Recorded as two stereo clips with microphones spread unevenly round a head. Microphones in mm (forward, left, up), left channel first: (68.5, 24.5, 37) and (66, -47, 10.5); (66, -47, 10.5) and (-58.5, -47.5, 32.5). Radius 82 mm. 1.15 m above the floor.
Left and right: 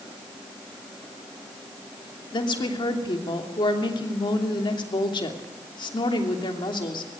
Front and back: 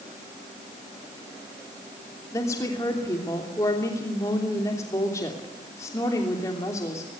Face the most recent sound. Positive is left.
turn(degrees=75)